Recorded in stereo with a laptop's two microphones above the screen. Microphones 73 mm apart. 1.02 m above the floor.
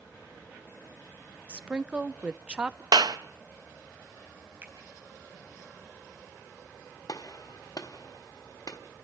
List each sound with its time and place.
1.5 s a woman speaking: 15° right (ahead or behind), 0.8 m
2.9 s a clap: 70° right (ahead or behind), 0.5 m
4.6 s a finger snap: 35° right (ahead or behind), 5.5 m
7.1 s a gunshot: 60° left (ahead or behind), 1.4 m